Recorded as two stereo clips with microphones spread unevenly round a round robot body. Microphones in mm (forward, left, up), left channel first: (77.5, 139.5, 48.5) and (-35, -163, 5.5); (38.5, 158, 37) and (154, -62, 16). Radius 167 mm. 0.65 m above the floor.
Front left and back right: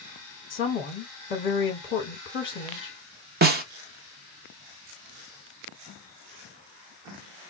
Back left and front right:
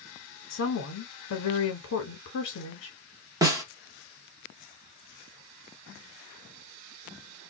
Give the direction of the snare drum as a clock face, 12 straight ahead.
4 o'clock.